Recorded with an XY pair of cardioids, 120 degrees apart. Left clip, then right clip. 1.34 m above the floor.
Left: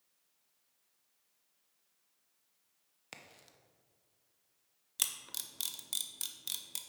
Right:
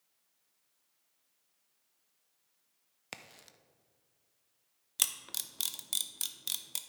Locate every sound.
3.1 s a crack: 30° right, 0.6 m
5.0 s a camera shutter: 20° right, 0.6 m